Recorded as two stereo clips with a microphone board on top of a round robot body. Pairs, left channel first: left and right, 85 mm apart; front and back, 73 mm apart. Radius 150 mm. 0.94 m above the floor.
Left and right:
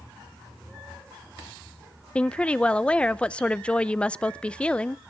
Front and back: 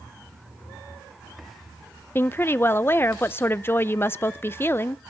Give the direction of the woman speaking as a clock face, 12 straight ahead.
11 o'clock.